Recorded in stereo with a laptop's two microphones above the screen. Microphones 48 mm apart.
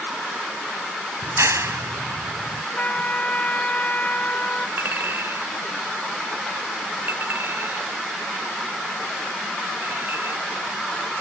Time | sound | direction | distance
1.2 | a clap | 80° right | ?
2.8 | a trumpet | 35° left (ahead or behind) | ?
4.8 | a clink | 50° right (ahead or behind) | ?